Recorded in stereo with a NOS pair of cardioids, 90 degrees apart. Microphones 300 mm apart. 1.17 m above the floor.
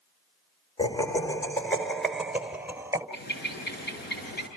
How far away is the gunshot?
No gunshot in this recording.